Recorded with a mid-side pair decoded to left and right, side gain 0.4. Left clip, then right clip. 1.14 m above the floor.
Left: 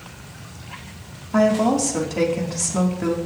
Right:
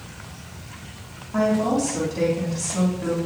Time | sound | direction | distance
1.3 | a woman speaking | 60° left | 3.5 m